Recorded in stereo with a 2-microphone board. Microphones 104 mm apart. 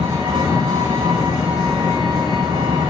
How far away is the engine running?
About 1.6 m.